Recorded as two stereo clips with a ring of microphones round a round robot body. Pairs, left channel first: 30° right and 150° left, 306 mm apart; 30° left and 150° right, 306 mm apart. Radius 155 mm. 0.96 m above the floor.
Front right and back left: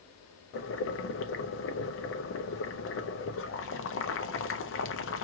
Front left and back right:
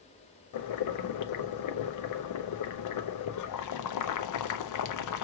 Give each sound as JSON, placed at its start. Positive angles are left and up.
{"t": 0.5, "sound": "boiling", "azimuth_deg": 15, "distance_m": 0.6}